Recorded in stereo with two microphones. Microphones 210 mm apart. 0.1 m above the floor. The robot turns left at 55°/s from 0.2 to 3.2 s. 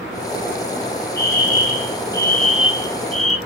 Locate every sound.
1.2 s a fire alarm: 75° left, 3.5 m; by 3.4 s 40° right, 3.5 m